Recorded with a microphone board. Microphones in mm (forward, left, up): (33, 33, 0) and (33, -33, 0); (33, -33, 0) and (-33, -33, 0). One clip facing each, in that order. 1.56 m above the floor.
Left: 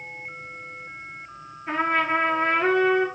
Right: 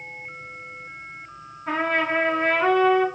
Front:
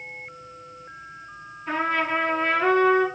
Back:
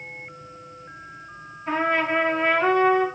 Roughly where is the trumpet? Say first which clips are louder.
Even, back 2 dB; behind right.